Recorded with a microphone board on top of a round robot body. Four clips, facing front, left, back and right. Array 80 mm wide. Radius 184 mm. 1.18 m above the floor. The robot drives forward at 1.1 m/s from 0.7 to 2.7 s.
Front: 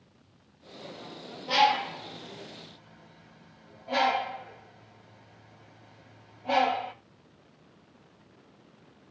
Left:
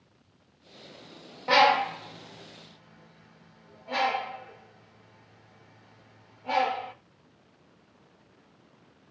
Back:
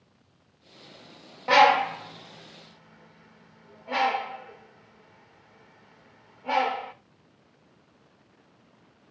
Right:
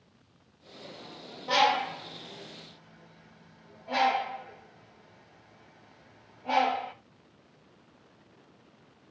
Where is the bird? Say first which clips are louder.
Left 4 dB, back 6 dB; 150° left, 0.5 m; by 6.9 s 170° left, 1.8 m.